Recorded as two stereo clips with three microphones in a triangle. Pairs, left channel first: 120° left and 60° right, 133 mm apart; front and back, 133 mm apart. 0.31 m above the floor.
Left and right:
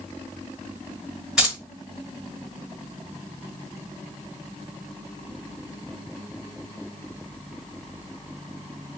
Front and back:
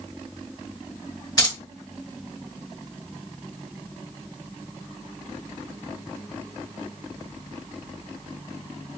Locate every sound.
1.4 s keys jangling: 20° left, 1.0 m